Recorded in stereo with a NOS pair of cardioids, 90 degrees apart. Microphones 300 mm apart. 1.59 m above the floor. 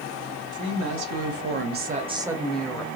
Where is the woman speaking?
70° right, 1.3 m; by 2.9 s 15° left, 1.0 m.